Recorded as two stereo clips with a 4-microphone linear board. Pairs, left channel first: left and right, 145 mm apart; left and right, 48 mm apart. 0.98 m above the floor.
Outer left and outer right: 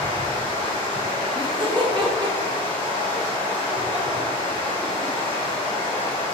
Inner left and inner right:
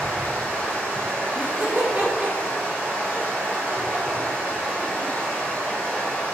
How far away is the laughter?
About 0.6 m.